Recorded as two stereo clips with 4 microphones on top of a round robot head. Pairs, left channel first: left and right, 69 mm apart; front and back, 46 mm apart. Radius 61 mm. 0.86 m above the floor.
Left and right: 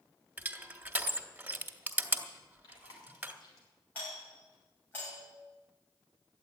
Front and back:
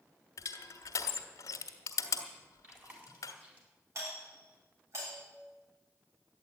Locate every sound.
0.4 s crushing: 25° right, 1.4 m
2.6 s chewing: 125° left, 4 m
4.0 s a doorbell: 160° left, 8 m